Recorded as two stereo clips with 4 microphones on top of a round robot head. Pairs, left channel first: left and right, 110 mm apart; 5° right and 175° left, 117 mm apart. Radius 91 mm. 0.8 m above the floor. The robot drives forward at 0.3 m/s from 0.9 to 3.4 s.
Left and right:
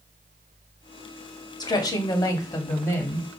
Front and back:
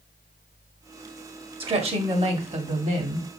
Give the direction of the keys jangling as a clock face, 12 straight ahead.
No keys jangling in this recording.